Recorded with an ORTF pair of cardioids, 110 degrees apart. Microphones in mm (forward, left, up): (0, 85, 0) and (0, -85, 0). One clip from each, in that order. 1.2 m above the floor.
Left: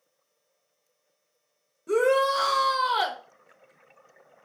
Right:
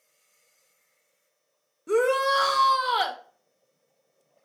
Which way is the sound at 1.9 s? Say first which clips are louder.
Even; 5° right.